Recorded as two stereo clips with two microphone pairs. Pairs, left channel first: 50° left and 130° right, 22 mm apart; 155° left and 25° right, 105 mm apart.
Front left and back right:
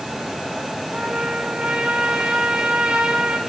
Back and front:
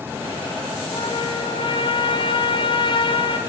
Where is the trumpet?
165° right, 5 m.